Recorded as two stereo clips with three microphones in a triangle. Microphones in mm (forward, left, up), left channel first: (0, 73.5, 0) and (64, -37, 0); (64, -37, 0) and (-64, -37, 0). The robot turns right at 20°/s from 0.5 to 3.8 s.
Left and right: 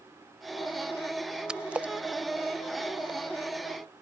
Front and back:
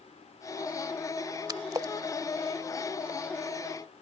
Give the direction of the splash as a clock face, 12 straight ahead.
5 o'clock.